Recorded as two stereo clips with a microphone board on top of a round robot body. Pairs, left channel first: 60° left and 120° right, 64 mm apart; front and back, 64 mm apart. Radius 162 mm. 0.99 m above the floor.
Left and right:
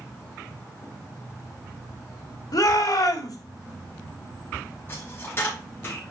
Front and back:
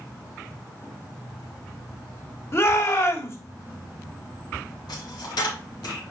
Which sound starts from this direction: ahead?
A dropped coin, at 4.9 s.